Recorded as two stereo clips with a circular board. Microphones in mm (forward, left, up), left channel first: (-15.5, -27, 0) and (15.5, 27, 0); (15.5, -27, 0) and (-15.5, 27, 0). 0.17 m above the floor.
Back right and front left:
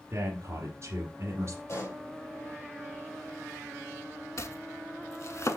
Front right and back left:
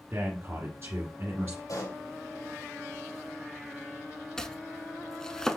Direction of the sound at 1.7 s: 75° right.